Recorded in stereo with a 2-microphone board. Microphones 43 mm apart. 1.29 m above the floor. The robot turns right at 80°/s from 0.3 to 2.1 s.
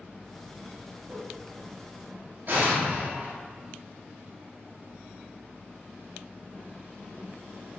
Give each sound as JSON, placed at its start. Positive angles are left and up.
{"t": 1.1, "sound": "a whoosh", "side_deg": -50, "distance_m": 0.9}
{"t": 2.5, "sound": "an explosion", "side_deg": -50, "distance_m": 1.4}